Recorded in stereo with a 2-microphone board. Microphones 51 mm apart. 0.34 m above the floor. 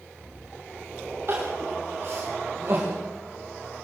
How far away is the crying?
About 8 m.